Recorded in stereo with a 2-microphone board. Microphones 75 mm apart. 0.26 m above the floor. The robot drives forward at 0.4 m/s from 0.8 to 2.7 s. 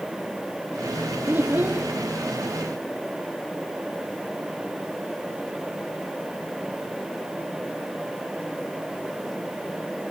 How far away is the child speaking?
About 1.3 m.